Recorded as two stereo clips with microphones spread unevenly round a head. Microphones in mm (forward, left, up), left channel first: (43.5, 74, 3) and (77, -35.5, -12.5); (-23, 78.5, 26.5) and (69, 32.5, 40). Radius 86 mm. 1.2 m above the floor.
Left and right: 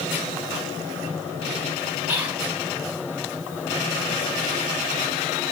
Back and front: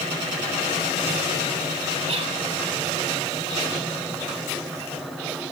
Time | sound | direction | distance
2.1 | whispering | 5° left | 2 m